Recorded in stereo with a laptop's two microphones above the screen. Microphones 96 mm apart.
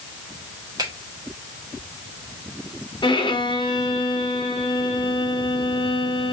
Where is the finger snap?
45° right (ahead or behind), 1.5 m.